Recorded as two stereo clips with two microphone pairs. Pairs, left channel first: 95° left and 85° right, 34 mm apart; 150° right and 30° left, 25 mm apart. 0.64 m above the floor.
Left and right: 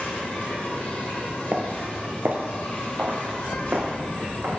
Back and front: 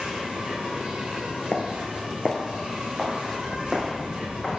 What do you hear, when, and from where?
0.0 s an insect: 75° left, 2.5 m
1.5 s footsteps: 135° right, 0.8 m; by 4.6 s 55° right, 2.5 m